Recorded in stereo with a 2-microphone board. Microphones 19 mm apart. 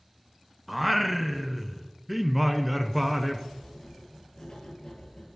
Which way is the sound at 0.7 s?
5° right (ahead or behind).